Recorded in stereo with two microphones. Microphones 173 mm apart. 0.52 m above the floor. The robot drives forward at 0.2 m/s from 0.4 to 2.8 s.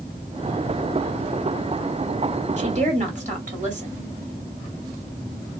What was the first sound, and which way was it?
A woman speaking, 40° right (ahead or behind).